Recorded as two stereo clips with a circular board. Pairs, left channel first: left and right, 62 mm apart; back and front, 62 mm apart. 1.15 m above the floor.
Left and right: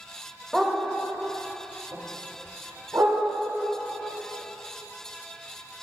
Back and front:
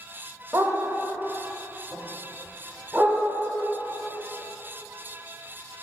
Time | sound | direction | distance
0.5 | a dog barking | straight ahead | 1.1 m